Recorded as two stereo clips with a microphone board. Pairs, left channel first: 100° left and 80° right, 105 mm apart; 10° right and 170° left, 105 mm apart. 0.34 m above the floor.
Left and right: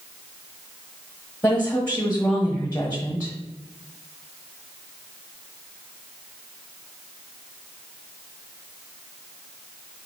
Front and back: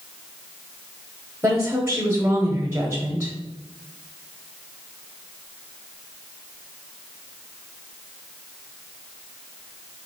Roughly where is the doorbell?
I don't hear a doorbell.